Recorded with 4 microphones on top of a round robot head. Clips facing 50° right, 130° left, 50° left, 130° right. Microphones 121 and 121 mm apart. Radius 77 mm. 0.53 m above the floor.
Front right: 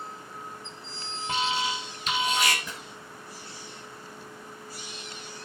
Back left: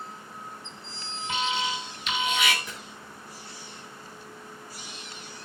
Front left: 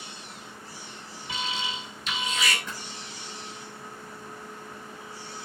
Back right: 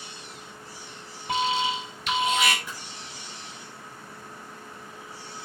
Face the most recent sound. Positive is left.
turn(degrees=-50)